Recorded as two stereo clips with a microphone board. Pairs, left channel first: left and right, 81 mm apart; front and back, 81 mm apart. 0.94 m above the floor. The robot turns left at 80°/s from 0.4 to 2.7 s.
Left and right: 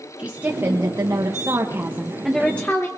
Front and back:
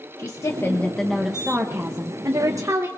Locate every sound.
0.2 s a woman speaking: 25° right, 1.1 m; by 2.9 s 150° left, 1.1 m